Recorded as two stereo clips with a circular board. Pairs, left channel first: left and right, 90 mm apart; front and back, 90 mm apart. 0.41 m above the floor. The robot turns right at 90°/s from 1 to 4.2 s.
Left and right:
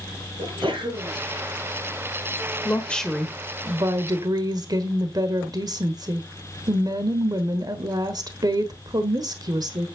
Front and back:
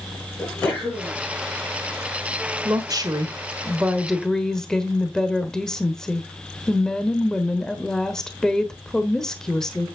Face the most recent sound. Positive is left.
turn(degrees=-80)